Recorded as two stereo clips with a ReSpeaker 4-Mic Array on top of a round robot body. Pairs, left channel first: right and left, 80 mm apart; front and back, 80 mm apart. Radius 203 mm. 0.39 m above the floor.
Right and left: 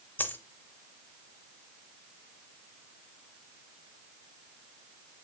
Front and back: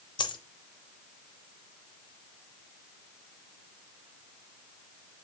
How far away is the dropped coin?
About 0.6 m.